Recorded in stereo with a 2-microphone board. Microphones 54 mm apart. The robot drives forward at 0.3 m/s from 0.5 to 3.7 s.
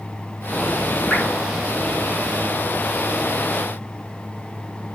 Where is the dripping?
10° left (ahead or behind), 1.1 m.